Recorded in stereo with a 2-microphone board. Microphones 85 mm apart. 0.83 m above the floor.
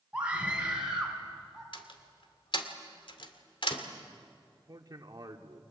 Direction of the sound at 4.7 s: 50° right (ahead or behind).